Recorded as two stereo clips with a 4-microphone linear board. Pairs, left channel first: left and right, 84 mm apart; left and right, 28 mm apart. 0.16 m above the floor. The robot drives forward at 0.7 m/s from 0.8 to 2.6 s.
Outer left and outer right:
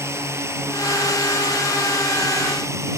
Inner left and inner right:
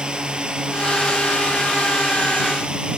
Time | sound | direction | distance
0.0 | a drone | 35° right (ahead or behind) | ?